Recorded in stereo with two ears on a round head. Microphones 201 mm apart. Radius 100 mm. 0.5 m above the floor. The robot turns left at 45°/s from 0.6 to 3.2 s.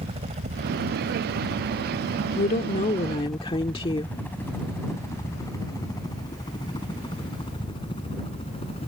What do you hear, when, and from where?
0.0 s a helicopter: 25° right (ahead or behind); by 8.9 s 25° left (ahead or behind)
2.4 s a woman speaking: 75° left; by 4.2 s 35° left